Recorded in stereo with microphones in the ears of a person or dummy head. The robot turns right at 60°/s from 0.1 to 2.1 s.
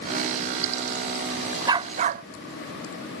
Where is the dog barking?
20° right (ahead or behind); by 2.2 s 45° right (ahead or behind).